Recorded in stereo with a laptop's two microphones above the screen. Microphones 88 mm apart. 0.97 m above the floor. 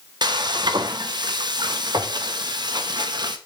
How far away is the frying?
About 1.0 m.